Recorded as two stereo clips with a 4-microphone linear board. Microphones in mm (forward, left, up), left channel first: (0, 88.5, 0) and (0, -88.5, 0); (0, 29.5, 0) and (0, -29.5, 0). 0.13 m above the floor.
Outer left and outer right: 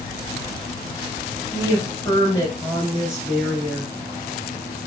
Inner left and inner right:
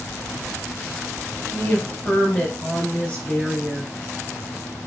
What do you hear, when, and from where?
1.5 s a woman speaking: 15° left (ahead or behind), 2 m